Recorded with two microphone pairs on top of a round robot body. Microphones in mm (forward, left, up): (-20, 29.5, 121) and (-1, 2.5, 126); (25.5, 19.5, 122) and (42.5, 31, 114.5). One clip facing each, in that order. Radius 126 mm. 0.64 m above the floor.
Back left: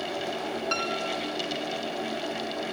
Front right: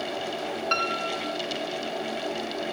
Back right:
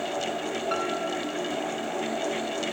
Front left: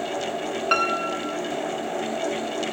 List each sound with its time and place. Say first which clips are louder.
0.7 s a piano: front right 4 dB, front left 9 dB; 20° left